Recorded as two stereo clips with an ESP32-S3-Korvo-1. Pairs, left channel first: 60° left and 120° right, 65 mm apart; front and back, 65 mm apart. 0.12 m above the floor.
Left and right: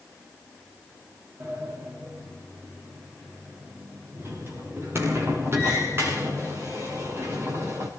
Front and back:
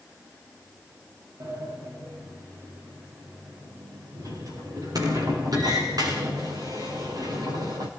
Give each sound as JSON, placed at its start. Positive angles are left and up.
{"t": 1.4, "sound": "a sliding door", "azimuth_deg": -170, "distance_m": 6.0}